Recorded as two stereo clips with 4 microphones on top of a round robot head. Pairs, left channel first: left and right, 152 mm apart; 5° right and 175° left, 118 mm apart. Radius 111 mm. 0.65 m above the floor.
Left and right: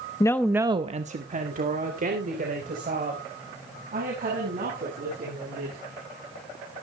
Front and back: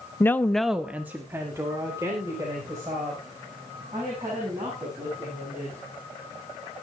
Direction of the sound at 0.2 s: 50° left.